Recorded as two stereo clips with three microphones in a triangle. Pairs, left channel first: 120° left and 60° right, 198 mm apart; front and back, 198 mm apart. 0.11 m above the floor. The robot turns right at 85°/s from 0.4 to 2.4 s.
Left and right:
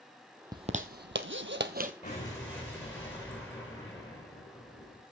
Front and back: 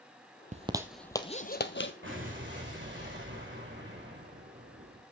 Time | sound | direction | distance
0.5 | a zipper | 125° right | 1.0 m
2.0 | an explosion | 170° left | 5.5 m